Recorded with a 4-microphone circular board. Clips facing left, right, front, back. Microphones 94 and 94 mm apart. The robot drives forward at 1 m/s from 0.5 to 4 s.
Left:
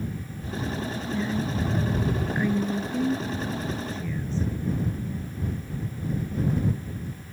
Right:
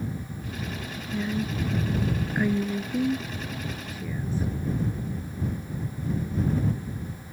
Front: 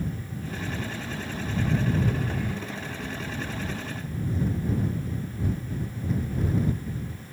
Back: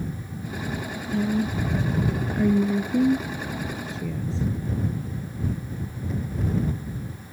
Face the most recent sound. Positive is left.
turn(degrees=-170)